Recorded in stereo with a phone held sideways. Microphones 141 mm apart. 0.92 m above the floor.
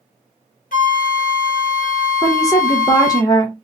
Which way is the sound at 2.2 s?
25° left (ahead or behind).